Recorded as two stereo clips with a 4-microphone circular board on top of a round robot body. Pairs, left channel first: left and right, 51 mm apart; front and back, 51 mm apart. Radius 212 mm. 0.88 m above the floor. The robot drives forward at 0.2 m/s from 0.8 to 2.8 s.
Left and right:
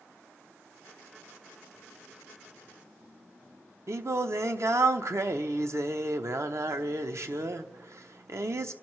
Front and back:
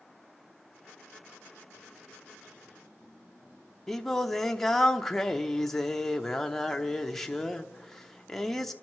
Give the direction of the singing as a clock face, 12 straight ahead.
3 o'clock.